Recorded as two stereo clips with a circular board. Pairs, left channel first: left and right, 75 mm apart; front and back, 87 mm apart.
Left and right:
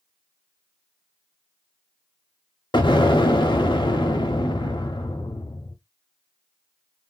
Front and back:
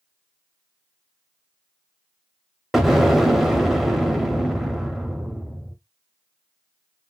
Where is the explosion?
95° left, 0.6 m.